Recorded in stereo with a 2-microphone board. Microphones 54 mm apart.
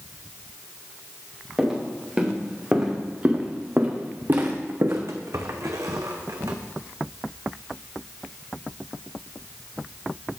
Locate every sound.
1.6 s footsteps: 10° right (ahead or behind), 2.5 m; by 6.5 s 75° right (ahead or behind), 1.1 m